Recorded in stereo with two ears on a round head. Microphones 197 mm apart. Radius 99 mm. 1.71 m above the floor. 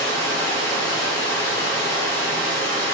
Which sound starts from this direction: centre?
Running water, at 0.0 s.